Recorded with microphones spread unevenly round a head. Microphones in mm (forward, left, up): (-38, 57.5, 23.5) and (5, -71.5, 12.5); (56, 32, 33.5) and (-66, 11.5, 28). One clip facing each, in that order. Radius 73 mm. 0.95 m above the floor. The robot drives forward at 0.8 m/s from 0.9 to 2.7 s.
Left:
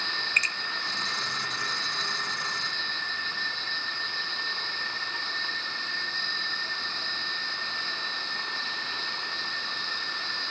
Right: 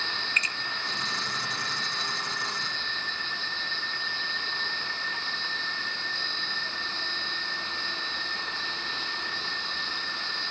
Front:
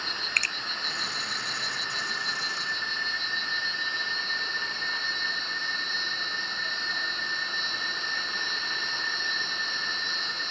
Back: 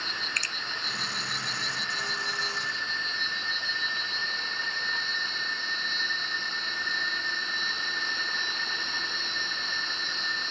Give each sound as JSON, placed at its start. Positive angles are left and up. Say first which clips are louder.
{"t": 0.4, "sound": "a finger snap", "louder": "even, front 2 dB", "azimuth_deg": 50, "distance_m": 0.6}